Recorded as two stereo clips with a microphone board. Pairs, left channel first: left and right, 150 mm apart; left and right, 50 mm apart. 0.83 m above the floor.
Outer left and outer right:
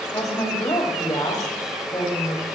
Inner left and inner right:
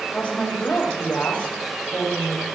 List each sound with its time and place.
0.1 s a woman speaking: 30° left (ahead or behind), 3.5 m